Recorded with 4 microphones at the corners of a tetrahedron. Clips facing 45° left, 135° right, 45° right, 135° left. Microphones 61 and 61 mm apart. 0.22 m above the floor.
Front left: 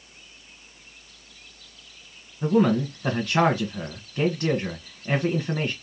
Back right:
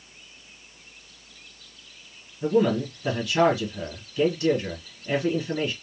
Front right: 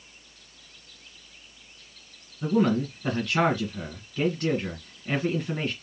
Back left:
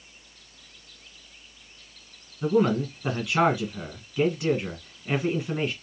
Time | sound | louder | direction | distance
2.4 | a man speaking | front left 1 dB, back left 1 dB | 55° left | 1.7 m